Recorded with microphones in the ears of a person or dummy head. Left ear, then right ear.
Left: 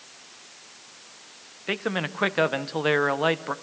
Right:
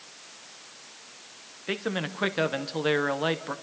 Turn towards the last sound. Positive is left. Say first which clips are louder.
# left 3 dB
turn(degrees=25)  # may be behind; listen again after turning